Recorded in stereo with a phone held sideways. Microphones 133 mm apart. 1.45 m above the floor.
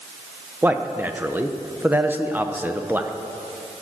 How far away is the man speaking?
About 0.8 m.